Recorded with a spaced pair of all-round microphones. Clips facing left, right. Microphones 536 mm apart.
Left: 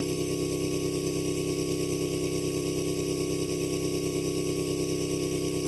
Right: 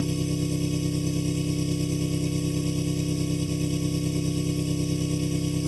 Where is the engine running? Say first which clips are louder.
Right 1 dB; 40° right (ahead or behind).